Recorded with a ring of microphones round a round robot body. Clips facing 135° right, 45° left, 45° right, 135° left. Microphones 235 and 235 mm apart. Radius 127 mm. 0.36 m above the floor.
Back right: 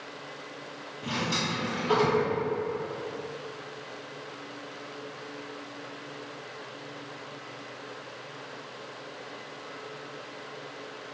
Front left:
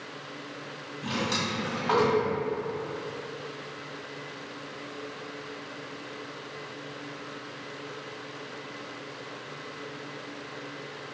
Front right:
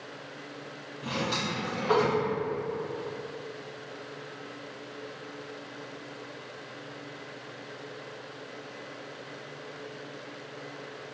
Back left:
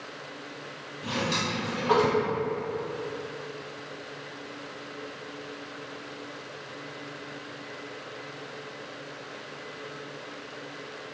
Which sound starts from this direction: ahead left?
A drawer, at 1.0 s.